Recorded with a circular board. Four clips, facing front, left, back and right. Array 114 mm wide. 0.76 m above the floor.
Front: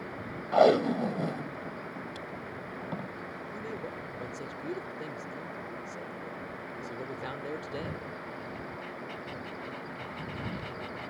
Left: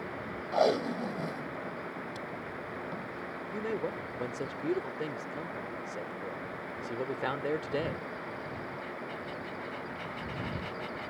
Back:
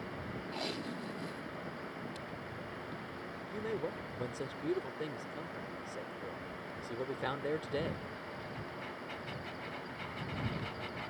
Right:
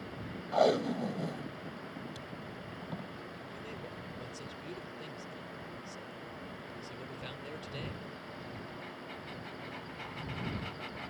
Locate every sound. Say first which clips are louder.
0.5 s tape being pulled: even, front 22 dB; 5° left
3.5 s a man speaking: left 15 dB, back 3 dB; 100° left